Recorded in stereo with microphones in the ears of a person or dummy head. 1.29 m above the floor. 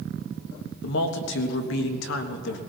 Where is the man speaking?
65° left (ahead or behind), 1.4 m.